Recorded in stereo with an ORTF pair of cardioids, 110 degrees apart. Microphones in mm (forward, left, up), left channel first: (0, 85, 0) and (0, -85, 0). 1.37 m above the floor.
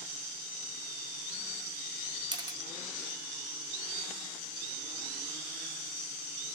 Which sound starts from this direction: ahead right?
A camera shutter, at 2.3 s.